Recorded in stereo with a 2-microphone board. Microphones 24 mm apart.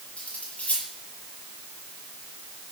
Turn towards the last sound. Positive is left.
turn(degrees=60)  # may be behind; listen again after turning